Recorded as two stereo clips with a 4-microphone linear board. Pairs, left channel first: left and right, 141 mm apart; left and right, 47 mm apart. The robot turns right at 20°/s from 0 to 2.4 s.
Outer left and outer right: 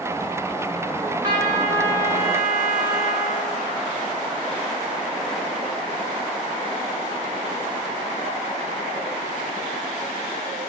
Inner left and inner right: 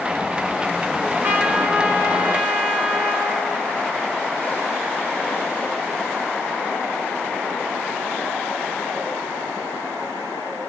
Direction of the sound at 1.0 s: 40° right (ahead or behind).